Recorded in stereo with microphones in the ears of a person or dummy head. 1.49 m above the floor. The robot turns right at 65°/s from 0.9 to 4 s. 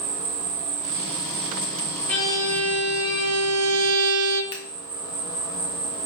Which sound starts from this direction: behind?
A violin, at 2.1 s.